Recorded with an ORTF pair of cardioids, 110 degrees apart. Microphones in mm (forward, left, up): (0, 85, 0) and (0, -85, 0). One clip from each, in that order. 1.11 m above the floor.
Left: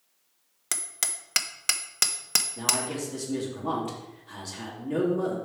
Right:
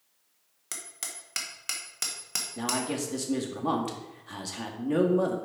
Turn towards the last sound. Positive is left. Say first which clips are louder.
# left 2 dB
turn(degrees=-25)